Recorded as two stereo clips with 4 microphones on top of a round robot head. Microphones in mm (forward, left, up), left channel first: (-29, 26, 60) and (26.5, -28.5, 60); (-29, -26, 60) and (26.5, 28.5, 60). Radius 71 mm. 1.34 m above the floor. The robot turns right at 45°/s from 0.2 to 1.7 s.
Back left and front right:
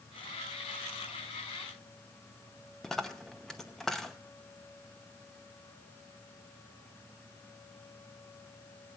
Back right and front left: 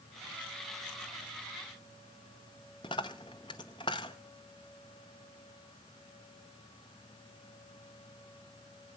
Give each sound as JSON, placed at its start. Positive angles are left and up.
{"t": 2.8, "sound": "a dropped coin", "azimuth_deg": -140, "distance_m": 0.6}